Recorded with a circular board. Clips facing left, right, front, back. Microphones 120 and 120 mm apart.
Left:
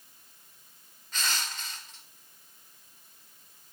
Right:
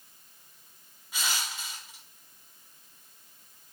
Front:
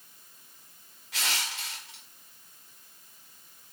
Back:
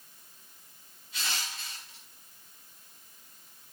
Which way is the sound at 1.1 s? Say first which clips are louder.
Even, front 3 dB; 10° right.